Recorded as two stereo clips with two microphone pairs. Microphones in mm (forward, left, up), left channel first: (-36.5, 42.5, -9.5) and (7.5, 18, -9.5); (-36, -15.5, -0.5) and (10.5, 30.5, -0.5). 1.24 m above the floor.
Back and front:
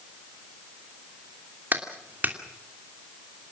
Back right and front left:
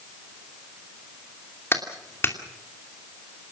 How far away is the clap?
About 2.5 m.